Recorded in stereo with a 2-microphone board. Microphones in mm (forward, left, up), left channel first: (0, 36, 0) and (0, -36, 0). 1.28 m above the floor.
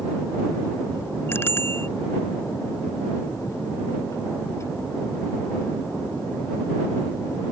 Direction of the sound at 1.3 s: 30° left (ahead or behind).